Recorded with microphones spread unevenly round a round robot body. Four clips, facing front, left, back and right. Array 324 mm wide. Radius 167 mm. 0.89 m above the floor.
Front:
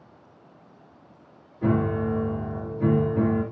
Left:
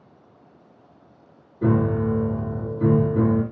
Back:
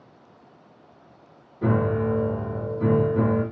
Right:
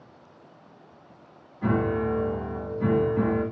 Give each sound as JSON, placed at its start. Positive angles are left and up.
{"t": 1.6, "sound": "a piano", "azimuth_deg": 110, "distance_m": 2.5}